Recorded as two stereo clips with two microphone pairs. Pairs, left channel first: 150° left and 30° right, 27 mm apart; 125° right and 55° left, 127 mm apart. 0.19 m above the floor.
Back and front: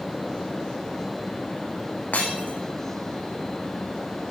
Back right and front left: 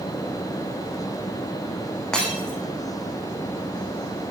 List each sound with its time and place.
2.1 s breaking glass: 150° left, 7 m